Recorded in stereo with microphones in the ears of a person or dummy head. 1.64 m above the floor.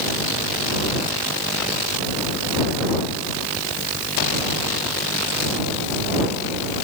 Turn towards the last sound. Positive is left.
No sound to turn to.